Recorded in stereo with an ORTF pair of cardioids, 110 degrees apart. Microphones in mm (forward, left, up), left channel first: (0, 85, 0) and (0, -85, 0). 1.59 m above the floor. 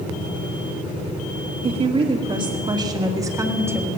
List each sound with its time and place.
1.6 s a woman speaking: 40° right, 3 m; by 3.9 s 15° right, 3 m